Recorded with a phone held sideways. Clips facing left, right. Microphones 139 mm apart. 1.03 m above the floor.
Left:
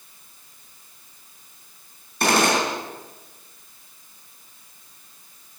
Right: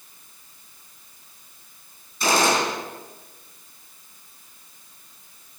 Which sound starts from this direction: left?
A gunshot, at 2.2 s.